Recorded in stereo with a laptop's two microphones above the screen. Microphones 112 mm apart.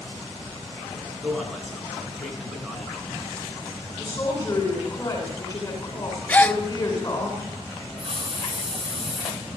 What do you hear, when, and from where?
1.2 s a man speaking: centre (ahead or behind), 9 m
4.0 s a woman speaking: 40° left (ahead or behind), 9.5 m
6.3 s a gasp: 15° left (ahead or behind), 1.0 m
8.0 s a hiss: 50° right (ahead or behind), 8 m